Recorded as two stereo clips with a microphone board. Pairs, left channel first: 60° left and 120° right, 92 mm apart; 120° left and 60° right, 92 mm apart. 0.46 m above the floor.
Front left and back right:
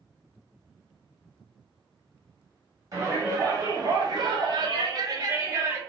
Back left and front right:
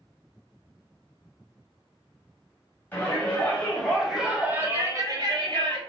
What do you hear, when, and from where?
2.9 s a shout: 175° right, 2.5 m; by 5.8 s 65° right, 1.6 m